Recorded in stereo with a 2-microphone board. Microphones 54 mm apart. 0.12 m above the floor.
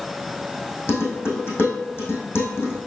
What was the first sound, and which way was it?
Dishes clattering, 40° left (ahead or behind).